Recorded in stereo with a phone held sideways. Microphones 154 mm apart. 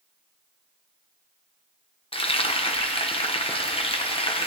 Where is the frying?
35° left (ahead or behind), 0.8 m.